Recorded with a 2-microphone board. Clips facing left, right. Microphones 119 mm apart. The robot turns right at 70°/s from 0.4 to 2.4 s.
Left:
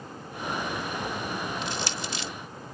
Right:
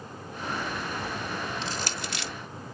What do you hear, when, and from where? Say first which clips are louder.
1.6 s crushing: left 1 dB; 35° right (ahead or behind); by 2.3 s 80° right